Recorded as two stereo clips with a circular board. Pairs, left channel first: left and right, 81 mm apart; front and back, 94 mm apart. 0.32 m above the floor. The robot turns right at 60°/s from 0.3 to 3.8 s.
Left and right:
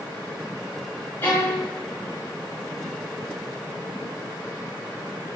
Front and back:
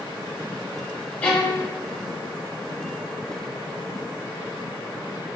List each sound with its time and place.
1.2 s a violin: 55° left, 1.1 m; by 1.7 s 85° left, 1.1 m